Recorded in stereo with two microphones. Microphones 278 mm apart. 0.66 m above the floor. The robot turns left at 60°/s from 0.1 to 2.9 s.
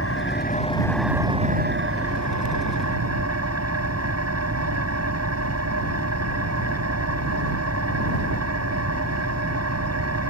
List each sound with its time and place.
0.0 s an engine running: 55° left; by 10.3 s 110° right